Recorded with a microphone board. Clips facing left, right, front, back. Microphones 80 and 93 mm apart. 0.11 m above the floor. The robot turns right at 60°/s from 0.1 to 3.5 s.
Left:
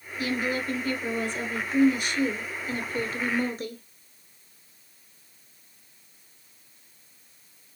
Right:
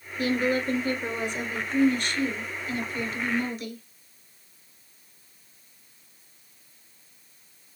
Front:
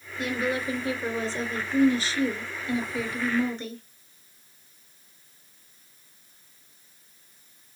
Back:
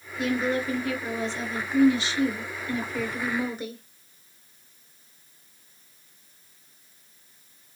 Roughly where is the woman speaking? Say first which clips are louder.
Right 4 dB, back 2 dB; right.